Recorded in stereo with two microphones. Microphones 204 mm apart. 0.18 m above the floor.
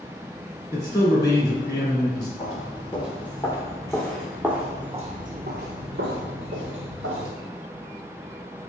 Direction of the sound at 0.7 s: 20° left (ahead or behind).